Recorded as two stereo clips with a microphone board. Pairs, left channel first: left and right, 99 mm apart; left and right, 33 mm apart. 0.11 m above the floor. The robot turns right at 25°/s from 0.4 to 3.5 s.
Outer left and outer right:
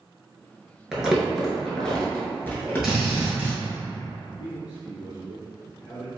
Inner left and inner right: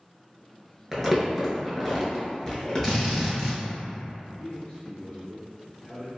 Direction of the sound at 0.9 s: 5° right (ahead or behind).